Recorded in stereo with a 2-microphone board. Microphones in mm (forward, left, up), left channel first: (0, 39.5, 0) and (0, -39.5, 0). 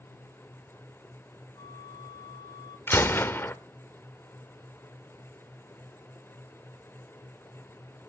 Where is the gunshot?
30° left (ahead or behind), 0.9 m.